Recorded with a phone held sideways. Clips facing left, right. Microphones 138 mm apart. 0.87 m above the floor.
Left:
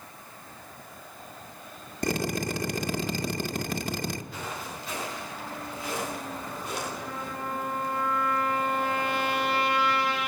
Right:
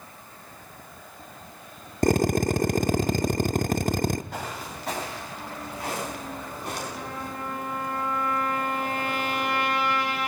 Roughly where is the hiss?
No hiss in this recording.